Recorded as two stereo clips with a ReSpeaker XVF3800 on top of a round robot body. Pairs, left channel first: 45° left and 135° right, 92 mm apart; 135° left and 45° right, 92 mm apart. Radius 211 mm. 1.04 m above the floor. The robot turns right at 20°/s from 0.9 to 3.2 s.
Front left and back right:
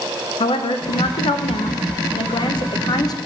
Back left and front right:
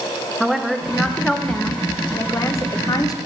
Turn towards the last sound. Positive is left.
turn(degrees=90)